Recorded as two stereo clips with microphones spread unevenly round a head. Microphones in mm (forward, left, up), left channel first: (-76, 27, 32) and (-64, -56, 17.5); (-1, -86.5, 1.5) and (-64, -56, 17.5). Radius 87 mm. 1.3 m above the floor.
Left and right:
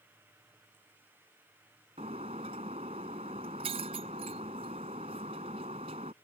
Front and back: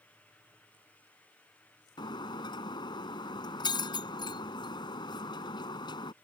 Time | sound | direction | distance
2.0 | breaking glass | 30° right | ?